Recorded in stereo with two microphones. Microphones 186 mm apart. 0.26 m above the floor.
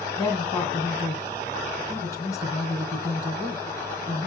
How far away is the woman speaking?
About 2 m.